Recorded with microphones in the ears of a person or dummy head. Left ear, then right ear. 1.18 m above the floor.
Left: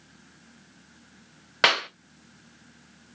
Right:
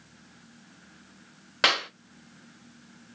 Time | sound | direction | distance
1.6 | a clap | 15° left (ahead or behind) | 0.6 m